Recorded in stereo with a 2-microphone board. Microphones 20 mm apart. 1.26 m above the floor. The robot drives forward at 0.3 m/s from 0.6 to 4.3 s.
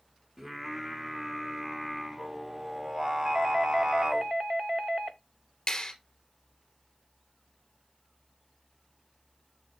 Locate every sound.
0.4 s singing: 25° right (ahead or behind), 1.8 m; by 4.2 s 50° right (ahead or behind), 1.0 m
3.2 s a doorbell: 30° right (ahead or behind), 0.6 m
5.7 s a clap: 30° left (ahead or behind), 2.5 m